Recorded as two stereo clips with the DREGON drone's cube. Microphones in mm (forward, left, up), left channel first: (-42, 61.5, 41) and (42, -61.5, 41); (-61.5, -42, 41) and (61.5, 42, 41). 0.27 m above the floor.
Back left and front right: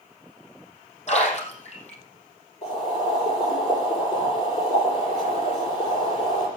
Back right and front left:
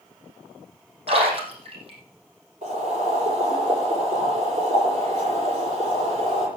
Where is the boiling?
80° left, 8 m.